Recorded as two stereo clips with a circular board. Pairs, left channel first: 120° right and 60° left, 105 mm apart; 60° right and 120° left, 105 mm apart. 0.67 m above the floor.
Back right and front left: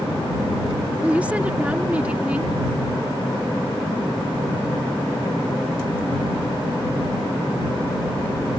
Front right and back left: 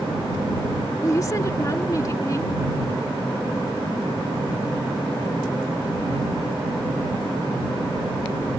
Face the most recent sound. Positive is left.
turn(degrees=-15)